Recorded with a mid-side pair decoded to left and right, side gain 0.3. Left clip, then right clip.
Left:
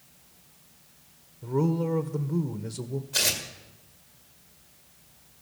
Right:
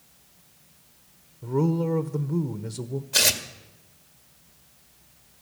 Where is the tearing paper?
65° right, 1.9 m.